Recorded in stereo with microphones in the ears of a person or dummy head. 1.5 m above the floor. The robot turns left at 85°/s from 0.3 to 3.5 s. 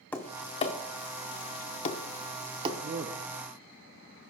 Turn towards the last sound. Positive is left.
turn(degrees=-90)